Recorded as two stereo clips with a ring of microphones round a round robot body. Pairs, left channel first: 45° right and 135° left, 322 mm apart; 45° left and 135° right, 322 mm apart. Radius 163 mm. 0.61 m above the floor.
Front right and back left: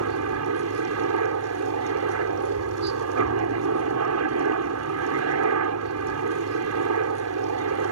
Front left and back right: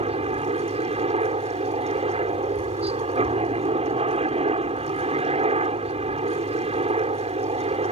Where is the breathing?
No breathing in this recording.